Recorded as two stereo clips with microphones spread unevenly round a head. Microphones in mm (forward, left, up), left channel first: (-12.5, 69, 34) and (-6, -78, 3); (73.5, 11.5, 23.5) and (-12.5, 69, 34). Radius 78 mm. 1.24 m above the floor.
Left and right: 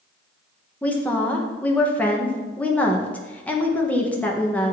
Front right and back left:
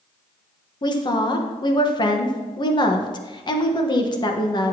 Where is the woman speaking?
5° left, 1.3 m.